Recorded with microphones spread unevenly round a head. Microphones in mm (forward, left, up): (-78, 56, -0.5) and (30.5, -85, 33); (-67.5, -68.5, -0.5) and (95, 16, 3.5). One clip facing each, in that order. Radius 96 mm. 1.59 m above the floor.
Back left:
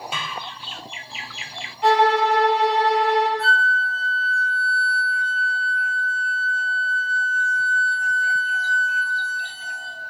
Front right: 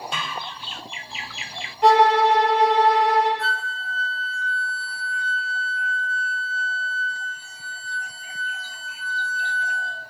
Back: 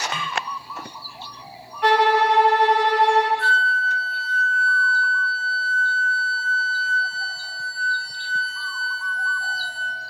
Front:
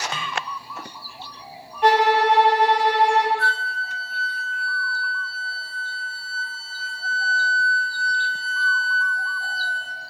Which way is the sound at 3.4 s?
15° left.